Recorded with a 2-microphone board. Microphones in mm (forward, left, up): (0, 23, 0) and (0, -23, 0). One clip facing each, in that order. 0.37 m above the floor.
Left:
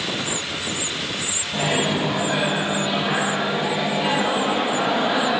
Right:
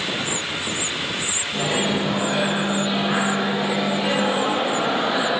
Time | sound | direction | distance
1.5 | a microwave | 50° left (ahead or behind) | 2 m